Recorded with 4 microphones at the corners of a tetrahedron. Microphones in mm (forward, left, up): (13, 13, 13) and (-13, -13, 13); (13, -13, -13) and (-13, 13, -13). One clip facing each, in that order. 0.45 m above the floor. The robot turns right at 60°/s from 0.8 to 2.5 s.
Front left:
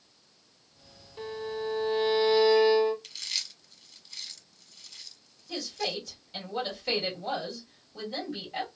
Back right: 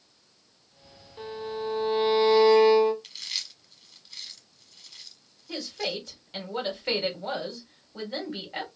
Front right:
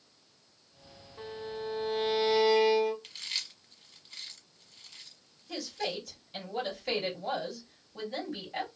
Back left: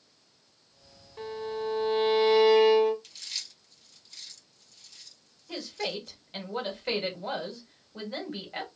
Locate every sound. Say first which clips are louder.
1.2 s a violin: back right 1 dB, back left 5 dB; 125° left, 2 m; by 2.9 s 155° right, 2 m
3.0 s chewing: even, front right 3 dB; 60° right, 1.0 m
5.5 s a woman speaking: back right 1 dB, back left 1 dB; 175° left, 1.9 m